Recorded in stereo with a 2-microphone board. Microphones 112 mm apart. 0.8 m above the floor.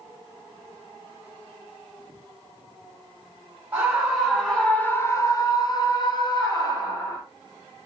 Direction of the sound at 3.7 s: 10° right (ahead or behind).